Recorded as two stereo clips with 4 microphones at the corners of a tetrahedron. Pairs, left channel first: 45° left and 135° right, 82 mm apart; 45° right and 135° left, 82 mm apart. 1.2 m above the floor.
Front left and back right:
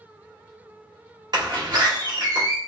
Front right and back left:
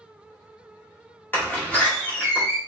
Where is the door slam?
110° right, 2 m.